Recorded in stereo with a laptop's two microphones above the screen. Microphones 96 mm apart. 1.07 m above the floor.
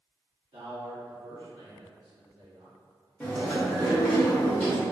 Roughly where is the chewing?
Centre.